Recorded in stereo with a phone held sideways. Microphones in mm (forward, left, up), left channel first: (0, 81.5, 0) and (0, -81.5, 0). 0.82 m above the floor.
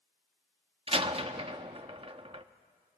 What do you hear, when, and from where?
0.9 s a door slam: 35° right (ahead or behind), 0.7 m